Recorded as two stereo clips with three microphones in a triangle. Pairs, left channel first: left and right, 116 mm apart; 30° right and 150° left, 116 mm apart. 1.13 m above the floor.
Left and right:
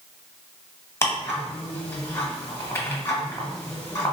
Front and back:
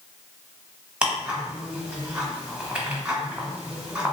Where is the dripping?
No dripping in this recording.